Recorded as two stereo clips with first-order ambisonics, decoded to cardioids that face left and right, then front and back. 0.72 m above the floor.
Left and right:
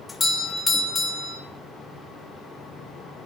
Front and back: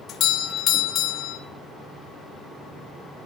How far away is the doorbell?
About 1.2 m.